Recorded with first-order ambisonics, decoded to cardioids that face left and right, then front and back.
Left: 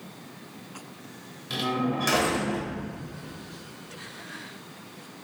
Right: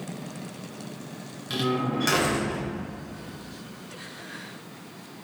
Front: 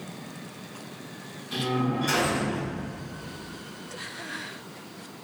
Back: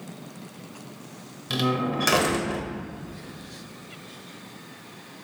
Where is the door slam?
170° right, 1.0 m.